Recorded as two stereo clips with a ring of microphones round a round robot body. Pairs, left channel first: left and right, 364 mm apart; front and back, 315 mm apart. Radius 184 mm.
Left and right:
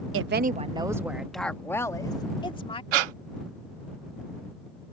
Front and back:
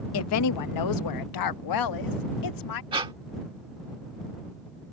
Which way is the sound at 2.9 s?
100° right.